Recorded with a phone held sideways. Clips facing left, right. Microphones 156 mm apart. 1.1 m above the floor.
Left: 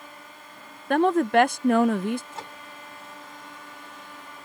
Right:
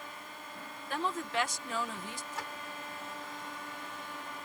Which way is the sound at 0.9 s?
65° left (ahead or behind).